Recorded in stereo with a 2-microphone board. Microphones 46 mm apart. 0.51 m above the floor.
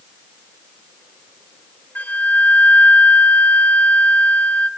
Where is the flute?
35° left (ahead or behind), 0.8 m.